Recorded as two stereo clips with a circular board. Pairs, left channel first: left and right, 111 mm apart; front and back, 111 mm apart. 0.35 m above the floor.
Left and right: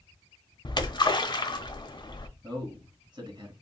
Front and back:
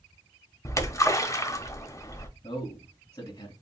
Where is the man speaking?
45° right, 3 m.